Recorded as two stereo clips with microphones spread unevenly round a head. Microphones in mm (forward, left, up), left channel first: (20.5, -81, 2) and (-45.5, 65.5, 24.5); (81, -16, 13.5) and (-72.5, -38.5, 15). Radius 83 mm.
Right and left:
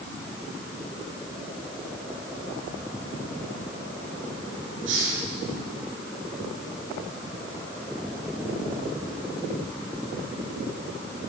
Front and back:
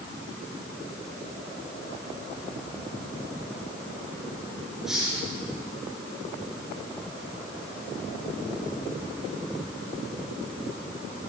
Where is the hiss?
100° left, 7.5 m.